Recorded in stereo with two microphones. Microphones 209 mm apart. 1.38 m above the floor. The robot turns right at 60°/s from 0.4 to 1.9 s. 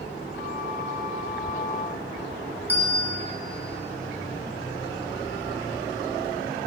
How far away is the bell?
About 1.4 m.